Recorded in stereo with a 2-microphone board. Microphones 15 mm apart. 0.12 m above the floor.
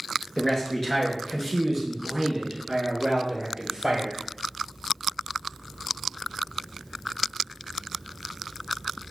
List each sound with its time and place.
0.4 s a man speaking: 35° left (ahead or behind), 1.8 m; by 4.2 s 45° right (ahead or behind), 1.8 m